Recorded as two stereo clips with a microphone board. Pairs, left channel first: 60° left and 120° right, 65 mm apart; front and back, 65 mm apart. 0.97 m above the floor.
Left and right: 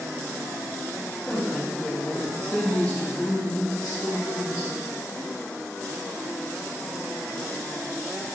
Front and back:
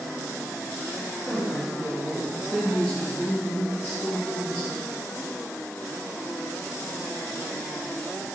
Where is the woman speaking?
145° left, 1.5 m; by 4.9 s 15° right, 1.9 m.